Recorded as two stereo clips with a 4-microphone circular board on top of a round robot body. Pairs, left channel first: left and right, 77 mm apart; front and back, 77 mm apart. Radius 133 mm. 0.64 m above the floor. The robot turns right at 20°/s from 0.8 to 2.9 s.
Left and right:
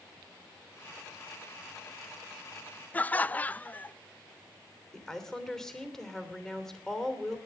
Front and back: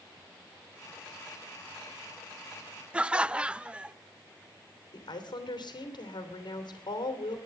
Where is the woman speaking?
5° left, 3 m.